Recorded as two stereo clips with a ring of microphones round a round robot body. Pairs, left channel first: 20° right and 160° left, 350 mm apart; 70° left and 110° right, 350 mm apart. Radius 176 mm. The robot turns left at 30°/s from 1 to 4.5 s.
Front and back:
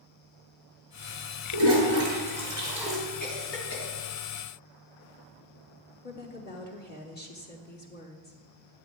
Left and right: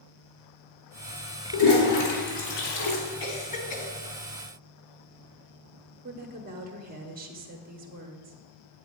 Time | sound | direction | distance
1.5 | a toilet flushing | 110° left | 3.5 m
3.2 | a cough | 45° left | 3 m
6.0 | a woman speaking | 65° right | 1.1 m